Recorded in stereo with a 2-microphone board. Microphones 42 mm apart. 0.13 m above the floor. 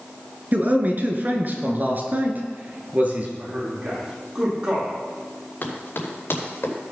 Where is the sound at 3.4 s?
30° right (ahead or behind), 5.5 m.